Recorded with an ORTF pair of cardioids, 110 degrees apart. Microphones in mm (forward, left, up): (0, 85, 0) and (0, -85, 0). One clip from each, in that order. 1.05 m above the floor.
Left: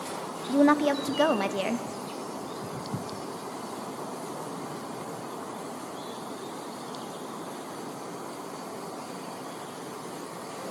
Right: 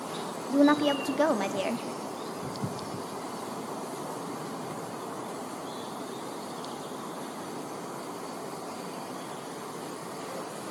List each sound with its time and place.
0.5 s a woman speaking: 10° left, 0.5 m